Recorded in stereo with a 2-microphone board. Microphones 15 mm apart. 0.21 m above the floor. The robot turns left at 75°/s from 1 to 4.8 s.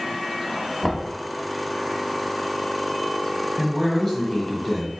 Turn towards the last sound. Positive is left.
turn(degrees=25)  # may be behind; listen again after turning